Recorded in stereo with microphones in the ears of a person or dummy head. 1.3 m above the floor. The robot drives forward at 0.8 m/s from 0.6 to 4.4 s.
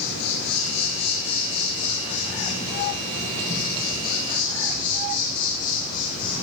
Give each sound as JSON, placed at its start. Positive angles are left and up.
{"t": 0.0, "sound": "an insect", "side_deg": 65, "distance_m": 2.5}